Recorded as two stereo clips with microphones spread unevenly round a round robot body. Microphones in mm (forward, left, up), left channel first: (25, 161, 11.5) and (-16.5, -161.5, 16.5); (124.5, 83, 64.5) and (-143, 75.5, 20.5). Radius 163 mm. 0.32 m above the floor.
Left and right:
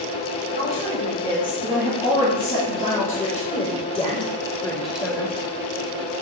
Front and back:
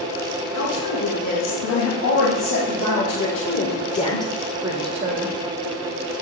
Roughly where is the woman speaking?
Ahead.